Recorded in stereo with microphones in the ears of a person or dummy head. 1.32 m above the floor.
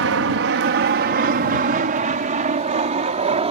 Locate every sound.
0.0 s an aircraft: 45° right (ahead or behind); by 3.5 s 20° right (ahead or behind)